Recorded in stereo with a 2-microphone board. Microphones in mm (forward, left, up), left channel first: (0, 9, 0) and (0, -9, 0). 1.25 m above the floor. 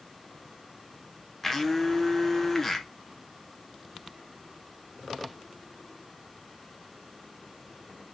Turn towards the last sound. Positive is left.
turn(degrees=15)  # may be behind; listen again after turning